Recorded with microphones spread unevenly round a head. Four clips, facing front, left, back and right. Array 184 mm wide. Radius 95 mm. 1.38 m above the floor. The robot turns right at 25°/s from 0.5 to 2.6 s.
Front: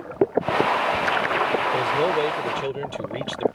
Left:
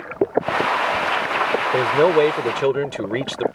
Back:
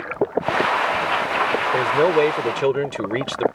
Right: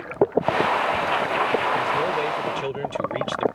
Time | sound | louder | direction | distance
1.7 | a man speaking | left 7 dB, back 8 dB | 110° left | ?